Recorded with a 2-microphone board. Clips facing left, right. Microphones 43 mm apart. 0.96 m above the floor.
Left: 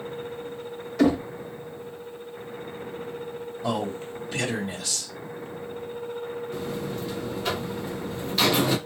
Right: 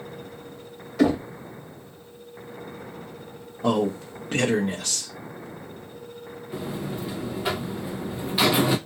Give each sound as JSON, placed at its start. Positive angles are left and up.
{"t": 1.0, "sound": "knocking", "side_deg": -5, "distance_m": 0.9}
{"t": 3.6, "sound": "a man speaking", "side_deg": -55, "distance_m": 0.8}
{"t": 6.5, "sound": "a buzzer", "side_deg": -15, "distance_m": 0.8}